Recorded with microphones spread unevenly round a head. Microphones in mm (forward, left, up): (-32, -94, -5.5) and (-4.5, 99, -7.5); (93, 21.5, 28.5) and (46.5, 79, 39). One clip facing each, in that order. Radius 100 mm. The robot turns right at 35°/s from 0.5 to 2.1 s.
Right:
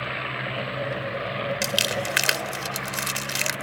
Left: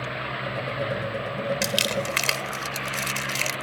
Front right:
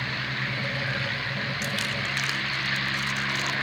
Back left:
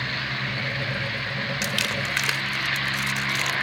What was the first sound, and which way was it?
Crumpling, 170° left.